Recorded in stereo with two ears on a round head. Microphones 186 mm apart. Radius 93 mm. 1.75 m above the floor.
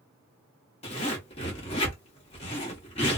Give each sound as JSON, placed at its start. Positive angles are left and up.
{"t": 0.8, "sound": "a zipper", "side_deg": 30, "distance_m": 1.3}